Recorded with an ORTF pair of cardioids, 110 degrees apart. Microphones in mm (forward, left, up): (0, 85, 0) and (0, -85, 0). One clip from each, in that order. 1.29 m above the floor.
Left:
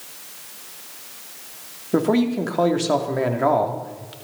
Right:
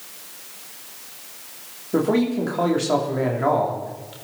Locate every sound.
1.9 s a man speaking: 25° left, 3 m